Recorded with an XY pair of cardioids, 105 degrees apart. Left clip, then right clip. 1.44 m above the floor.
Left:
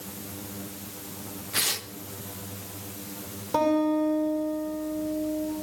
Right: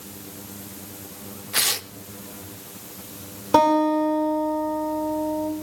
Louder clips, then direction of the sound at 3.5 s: Right 6 dB; 65° right.